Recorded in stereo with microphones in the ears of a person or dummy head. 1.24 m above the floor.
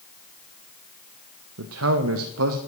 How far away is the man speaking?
About 0.6 m.